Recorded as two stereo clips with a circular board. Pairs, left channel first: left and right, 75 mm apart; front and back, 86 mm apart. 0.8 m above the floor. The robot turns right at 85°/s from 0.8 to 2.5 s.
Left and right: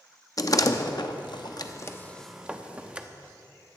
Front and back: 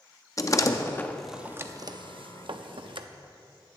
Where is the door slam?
50° left, 0.6 m; by 3.1 s 165° right, 0.6 m.